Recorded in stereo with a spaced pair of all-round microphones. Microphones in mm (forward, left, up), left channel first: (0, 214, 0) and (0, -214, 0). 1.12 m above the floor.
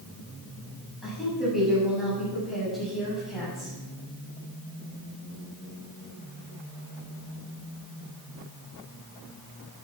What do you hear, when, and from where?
1.0 s a woman speaking: centre (ahead or behind), 9 m